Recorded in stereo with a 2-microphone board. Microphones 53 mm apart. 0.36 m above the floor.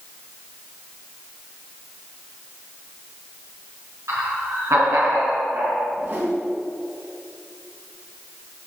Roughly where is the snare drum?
I don't hear a snare drum.